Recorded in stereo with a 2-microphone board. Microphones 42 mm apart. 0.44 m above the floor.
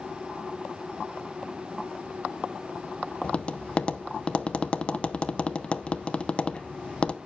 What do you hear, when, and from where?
3.2 s tapping: 25° left (ahead or behind), 0.7 m